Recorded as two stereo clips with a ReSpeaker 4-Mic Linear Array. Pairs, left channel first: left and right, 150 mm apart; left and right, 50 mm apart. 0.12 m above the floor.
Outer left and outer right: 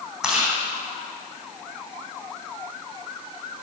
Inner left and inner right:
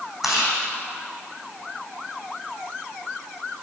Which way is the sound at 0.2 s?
5° right (ahead or behind).